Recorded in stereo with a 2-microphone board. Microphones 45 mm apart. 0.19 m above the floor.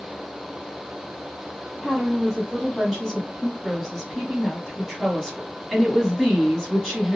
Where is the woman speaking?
10° left (ahead or behind), 1.0 m.